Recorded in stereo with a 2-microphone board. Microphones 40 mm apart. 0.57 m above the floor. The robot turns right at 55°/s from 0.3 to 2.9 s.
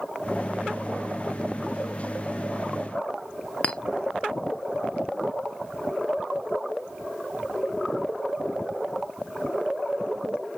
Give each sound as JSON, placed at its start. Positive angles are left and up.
{"t": 3.6, "sound": "a clink", "side_deg": 35, "distance_m": 0.6}